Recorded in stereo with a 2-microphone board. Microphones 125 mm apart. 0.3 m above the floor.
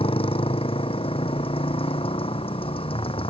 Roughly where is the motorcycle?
Left.